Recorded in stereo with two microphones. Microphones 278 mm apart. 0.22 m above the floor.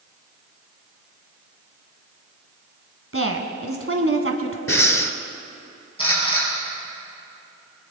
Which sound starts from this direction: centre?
A camera shutter, at 6.0 s.